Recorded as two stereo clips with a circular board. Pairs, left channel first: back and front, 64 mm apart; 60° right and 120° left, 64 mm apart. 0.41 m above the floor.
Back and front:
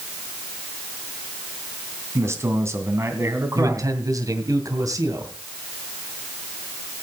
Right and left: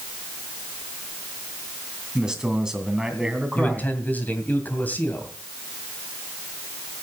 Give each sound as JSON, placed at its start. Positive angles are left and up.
{"t": 2.1, "sound": "a man speaking", "azimuth_deg": 40, "distance_m": 2.5}
{"t": 3.5, "sound": "a man speaking", "azimuth_deg": 0, "distance_m": 2.5}